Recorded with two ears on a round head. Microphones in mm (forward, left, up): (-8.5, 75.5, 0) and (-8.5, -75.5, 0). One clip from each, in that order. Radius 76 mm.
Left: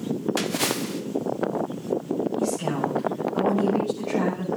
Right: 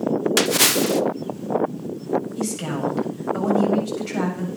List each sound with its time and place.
0.4 s a splash: 40° right (ahead or behind), 0.7 m
2.4 s a woman speaking: 70° right (ahead or behind), 8 m